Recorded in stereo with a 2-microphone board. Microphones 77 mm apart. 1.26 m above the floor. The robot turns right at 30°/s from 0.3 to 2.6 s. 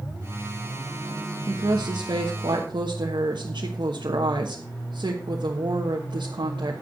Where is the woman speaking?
115° right, 1.2 m; by 6.8 s 80° right, 1.2 m.